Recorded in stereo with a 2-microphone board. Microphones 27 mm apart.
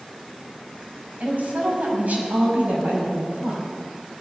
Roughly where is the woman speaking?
Right.